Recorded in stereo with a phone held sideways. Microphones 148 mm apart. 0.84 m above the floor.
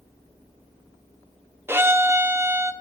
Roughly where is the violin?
Centre.